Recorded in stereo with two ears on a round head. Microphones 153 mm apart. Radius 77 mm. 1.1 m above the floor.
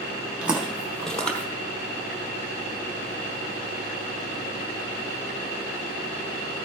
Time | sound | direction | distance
0.4 | footsteps | 10° right (ahead or behind) | 1.9 m